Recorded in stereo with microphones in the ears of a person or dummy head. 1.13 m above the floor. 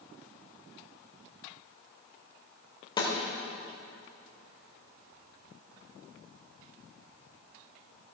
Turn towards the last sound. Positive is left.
turn(degrees=20)  # may be behind; listen again after turning